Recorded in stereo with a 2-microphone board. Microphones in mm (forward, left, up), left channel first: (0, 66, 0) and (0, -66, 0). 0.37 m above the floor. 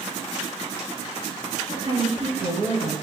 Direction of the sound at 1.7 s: 60° right (ahead or behind).